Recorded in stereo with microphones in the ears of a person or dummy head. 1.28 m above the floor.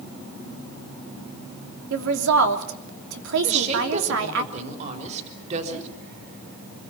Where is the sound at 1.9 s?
80° right, 3 m.